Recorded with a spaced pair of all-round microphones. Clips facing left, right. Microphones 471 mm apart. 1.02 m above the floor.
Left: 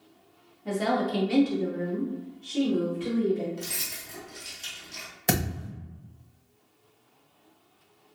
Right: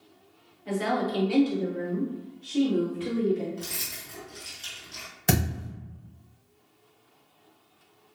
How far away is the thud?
About 0.8 m.